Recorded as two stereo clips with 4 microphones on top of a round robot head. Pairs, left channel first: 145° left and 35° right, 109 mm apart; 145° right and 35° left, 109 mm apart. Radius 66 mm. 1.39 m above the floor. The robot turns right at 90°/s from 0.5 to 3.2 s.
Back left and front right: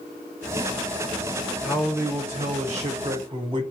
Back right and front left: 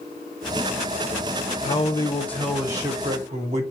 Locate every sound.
1.6 s a man speaking: 130° right, 1.2 m; by 3.6 s 10° left, 1.2 m